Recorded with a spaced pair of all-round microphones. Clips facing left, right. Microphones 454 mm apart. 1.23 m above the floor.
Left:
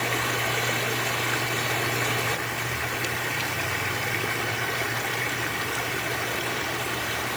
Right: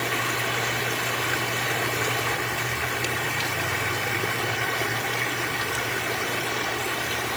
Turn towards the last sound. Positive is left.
No sound to turn to.